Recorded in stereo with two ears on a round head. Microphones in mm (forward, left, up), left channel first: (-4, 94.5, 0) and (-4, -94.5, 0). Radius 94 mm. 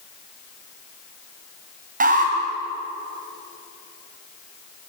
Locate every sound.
2.0 s an alarm: 40° right (ahead or behind), 5 m